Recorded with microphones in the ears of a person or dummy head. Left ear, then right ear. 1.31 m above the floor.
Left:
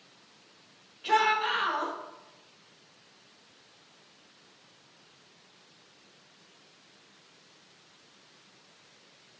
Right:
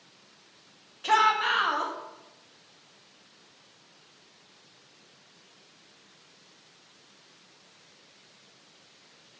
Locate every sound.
1.0 s a shout: 40° right (ahead or behind), 1.0 m